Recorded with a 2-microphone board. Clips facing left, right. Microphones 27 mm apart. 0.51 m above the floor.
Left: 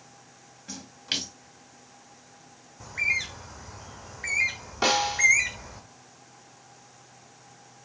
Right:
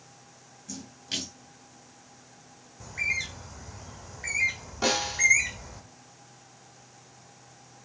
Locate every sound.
0.7 s a splash: 40° left (ahead or behind), 2.5 m
2.8 s a bird: 10° left (ahead or behind), 1.2 m
4.8 s a snare drum: 25° left (ahead or behind), 3.5 m